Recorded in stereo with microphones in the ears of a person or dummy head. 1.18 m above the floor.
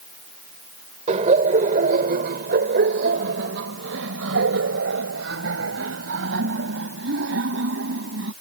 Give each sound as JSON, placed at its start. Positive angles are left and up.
{"t": 1.1, "sound": "laughter", "side_deg": -40}